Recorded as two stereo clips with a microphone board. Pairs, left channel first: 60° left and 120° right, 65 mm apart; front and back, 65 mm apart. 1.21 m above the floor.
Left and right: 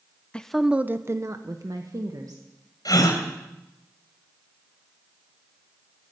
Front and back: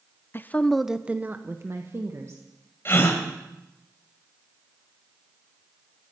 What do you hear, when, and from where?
0.3 s a woman speaking: straight ahead, 0.6 m; by 2.4 s 140° right, 1.7 m
2.9 s a gasp: 55° left, 2.5 m